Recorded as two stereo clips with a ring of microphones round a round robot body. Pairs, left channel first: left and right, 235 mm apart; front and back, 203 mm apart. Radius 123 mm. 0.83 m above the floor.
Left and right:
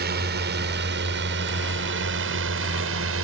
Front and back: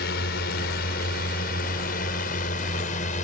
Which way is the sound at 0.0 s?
45° right.